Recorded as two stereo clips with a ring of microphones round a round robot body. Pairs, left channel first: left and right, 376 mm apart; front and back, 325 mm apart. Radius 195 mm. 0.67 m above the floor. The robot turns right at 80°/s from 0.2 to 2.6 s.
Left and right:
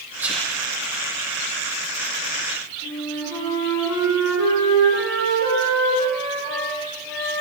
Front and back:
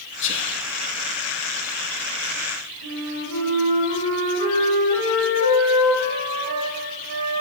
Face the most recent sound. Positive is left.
turn(degrees=165)